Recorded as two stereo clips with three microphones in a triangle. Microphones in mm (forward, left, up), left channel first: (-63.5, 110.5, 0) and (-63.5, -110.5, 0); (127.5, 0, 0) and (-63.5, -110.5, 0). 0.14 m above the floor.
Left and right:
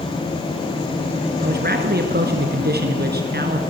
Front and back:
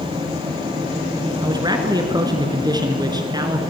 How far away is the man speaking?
About 2 m.